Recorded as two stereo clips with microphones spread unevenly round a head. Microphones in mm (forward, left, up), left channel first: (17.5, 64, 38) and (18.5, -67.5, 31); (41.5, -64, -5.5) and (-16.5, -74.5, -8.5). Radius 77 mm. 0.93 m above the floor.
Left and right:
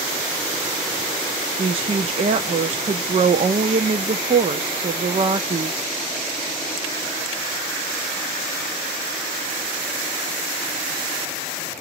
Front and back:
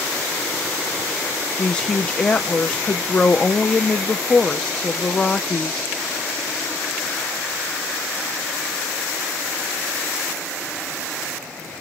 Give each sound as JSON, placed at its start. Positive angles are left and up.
{"t": 1.6, "sound": "a woman speaking", "azimuth_deg": -60, "distance_m": 0.6}